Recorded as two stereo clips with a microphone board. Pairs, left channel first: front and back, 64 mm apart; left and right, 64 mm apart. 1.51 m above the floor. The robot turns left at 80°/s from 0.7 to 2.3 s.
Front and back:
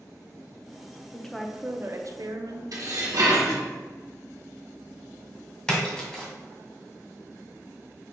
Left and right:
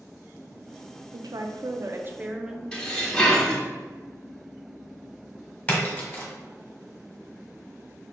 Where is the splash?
50° left, 1.4 m.